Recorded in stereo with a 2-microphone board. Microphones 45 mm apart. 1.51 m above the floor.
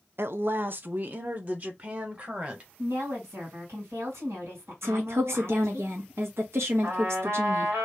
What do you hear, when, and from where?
0.2 s a woman speaking: 60° right (ahead or behind), 0.5 m; by 2.7 s 35° right (ahead or behind), 1.7 m
2.8 s a woman speaking: 75° right (ahead or behind), 2 m
4.8 s a woman speaking: 75° right (ahead or behind), 1.4 m
6.8 s a trumpet: 55° right (ahead or behind), 2.0 m